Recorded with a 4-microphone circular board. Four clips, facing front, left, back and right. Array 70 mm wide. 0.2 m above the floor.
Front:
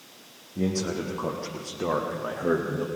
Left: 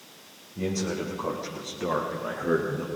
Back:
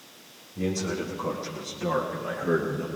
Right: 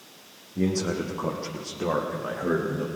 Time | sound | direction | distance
0.6 | a man speaking | 45° right | 8.5 m